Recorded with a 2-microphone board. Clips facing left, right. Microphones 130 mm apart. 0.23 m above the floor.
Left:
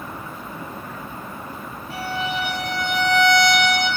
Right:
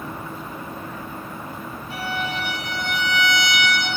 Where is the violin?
25° right (ahead or behind), 7 m.